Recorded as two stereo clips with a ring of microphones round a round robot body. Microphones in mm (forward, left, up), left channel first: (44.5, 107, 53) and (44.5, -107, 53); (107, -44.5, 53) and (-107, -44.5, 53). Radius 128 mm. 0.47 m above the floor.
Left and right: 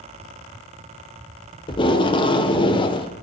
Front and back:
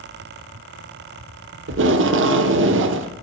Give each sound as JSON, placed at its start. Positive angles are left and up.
{"t": 1.7, "sound": "tape being pulled", "azimuth_deg": 155, "distance_m": 0.7}